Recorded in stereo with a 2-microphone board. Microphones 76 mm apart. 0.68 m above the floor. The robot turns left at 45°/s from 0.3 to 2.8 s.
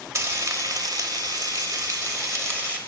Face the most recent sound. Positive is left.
turn(degrees=-155)